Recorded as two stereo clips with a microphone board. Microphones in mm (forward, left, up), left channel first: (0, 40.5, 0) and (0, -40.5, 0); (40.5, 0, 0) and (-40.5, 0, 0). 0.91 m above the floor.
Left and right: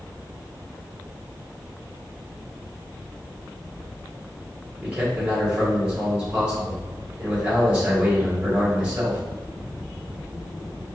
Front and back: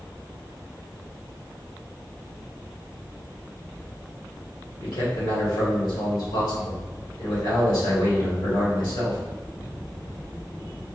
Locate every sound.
4.8 s a man speaking: 15° right, 1.8 m